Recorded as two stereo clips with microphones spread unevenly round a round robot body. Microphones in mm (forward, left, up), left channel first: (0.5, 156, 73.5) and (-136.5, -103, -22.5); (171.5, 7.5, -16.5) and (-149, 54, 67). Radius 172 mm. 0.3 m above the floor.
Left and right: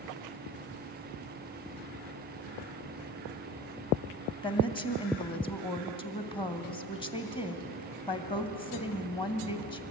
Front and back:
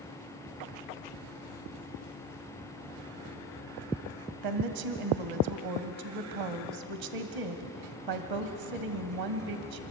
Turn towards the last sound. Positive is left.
turn(degrees=145)